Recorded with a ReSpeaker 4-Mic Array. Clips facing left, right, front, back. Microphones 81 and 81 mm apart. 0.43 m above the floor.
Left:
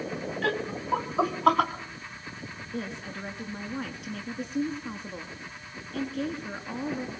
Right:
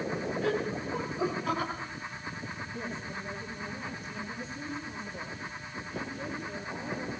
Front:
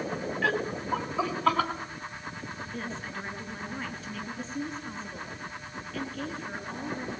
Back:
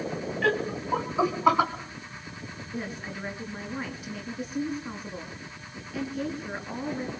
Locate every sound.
0.4 s laughter: 85° left, 3.5 m; by 1.7 s 105° left, 4.5 m
2.7 s a woman speaking: 100° left, 7 m